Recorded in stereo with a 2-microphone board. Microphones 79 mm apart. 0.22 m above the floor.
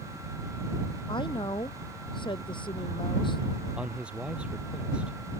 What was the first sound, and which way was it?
A woman speaking, 80° left.